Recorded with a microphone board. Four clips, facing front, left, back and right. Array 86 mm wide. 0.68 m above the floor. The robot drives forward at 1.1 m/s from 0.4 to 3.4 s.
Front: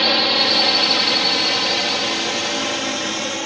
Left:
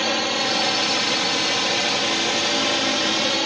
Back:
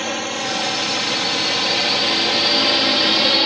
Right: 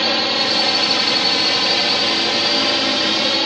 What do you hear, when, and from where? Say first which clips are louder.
0.0 s a drone: right 3 dB, front 4 dB; 25° right; by 3.5 s 160° right